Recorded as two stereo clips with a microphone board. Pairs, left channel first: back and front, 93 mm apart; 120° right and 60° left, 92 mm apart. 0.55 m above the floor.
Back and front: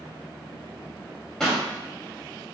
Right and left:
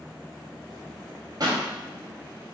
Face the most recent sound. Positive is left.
turn(degrees=95)